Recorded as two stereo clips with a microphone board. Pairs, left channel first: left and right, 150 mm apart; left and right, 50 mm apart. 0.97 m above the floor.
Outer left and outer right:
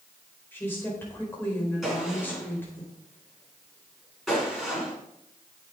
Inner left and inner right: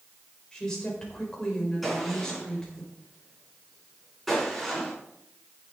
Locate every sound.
0.5 s a woman speaking: 15° left (ahead or behind), 4.5 m
1.8 s a gunshot: centre (ahead or behind), 7.5 m